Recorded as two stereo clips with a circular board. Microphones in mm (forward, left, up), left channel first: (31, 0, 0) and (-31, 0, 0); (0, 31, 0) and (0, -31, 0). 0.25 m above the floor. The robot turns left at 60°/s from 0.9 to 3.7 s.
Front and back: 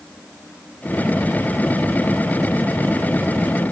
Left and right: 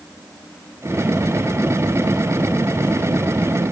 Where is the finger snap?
I don't hear a finger snap.